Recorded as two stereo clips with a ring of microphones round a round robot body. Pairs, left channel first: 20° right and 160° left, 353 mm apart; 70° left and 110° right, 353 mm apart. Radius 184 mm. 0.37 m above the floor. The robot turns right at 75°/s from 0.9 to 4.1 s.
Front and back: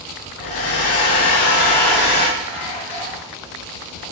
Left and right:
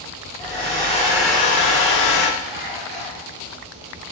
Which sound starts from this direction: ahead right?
A hair dryer, at 0.4 s.